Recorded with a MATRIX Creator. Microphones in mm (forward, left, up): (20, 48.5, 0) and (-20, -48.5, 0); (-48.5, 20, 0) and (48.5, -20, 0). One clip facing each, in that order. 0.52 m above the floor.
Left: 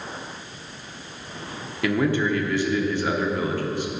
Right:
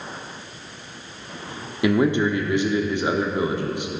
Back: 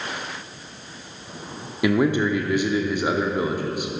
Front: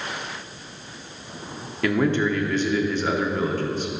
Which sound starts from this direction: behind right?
A man speaking, at 1.8 s.